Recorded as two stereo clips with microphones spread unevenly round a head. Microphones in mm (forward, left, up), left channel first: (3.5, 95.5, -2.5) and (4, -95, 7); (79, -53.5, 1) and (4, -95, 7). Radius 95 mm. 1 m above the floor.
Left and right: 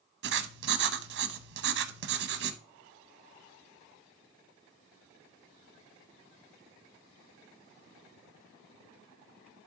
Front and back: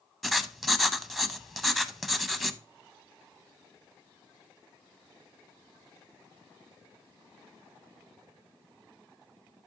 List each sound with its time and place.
0.2 s writing: 55° right, 0.8 m